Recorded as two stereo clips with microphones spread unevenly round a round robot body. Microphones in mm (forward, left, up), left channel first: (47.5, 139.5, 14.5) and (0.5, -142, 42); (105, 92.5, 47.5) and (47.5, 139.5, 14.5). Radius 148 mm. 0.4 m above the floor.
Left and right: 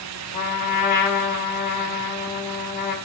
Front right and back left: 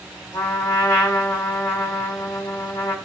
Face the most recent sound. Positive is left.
turn(degrees=20)